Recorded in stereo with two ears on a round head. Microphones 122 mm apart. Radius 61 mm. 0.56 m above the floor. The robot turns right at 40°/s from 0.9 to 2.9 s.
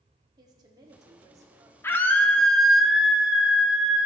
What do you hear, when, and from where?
0.4 s a woman speaking: 70° right, 1.0 m; by 1.7 s 35° right, 1.0 m
1.8 s a scream: 145° left, 0.7 m; by 4.1 s 170° right, 0.7 m